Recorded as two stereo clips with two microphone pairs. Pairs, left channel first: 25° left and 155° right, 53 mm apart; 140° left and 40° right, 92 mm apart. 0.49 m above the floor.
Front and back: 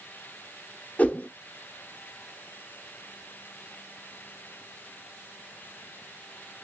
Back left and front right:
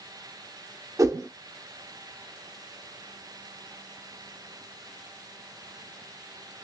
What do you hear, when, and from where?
1.0 s a whoosh: 15° right, 0.6 m